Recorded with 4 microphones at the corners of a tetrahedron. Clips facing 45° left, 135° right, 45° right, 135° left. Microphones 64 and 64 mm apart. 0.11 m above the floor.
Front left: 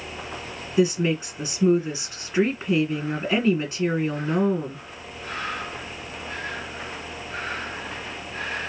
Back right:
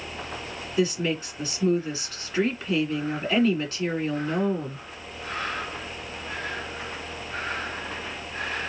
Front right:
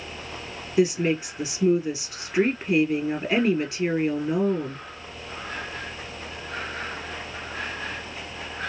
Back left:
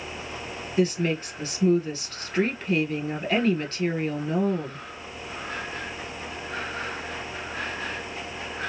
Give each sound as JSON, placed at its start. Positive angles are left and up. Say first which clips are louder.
{"t": 0.8, "sound": "a woman speaking", "louder": "front left 4 dB, front right 3 dB", "azimuth_deg": 10, "distance_m": 1.4}